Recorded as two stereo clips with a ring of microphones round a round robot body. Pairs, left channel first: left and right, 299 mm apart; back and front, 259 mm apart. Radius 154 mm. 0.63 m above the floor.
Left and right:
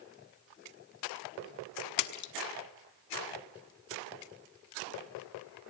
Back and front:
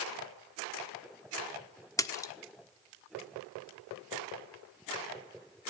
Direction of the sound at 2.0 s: 105° left.